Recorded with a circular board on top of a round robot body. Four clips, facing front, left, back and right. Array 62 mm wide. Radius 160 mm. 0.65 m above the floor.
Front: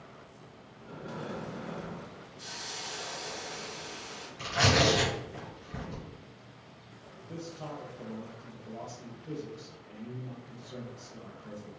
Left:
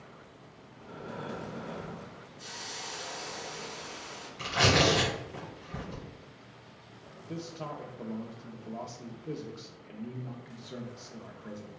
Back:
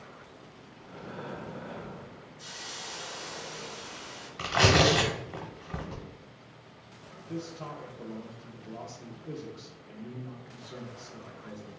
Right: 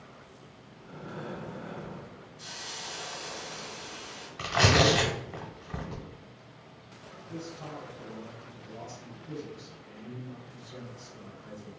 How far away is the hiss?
About 1.8 m.